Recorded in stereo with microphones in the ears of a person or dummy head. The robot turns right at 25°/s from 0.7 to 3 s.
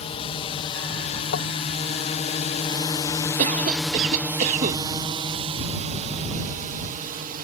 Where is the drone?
35° left (ahead or behind); by 7.5 s 45° right (ahead or behind).